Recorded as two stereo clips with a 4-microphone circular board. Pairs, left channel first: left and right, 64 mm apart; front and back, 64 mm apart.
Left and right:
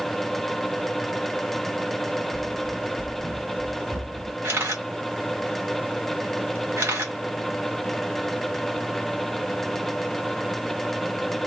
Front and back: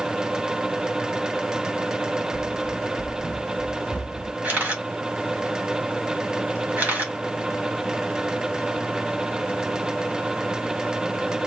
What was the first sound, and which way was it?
Running footsteps, 20° left.